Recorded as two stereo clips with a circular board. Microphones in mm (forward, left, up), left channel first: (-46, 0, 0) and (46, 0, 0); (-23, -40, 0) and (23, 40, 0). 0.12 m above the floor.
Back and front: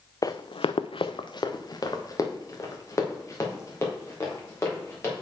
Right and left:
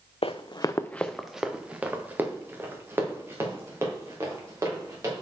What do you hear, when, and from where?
0.2 s running footsteps: 130° right, 0.5 m; by 5.2 s 120° left, 3.5 m